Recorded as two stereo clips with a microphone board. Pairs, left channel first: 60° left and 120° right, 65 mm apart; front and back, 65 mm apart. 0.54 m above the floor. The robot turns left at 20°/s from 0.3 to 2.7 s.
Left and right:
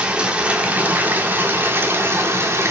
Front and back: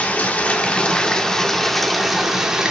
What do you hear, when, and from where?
0.0 s running water: 55° right, 1.3 m; by 2.7 s 105° right, 1.3 m